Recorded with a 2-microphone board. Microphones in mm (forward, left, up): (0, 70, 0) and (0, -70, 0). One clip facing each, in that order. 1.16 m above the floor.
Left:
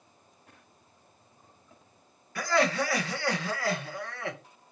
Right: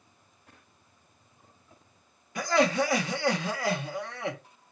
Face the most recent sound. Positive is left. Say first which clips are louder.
# right 2 dB
turn(degrees=-20)  # may be behind; listen again after turning